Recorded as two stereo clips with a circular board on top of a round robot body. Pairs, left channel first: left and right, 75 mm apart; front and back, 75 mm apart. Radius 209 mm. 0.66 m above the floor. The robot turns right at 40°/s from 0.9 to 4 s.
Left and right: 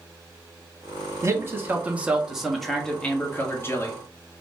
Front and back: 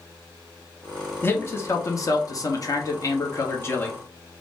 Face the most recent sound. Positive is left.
turn(degrees=60)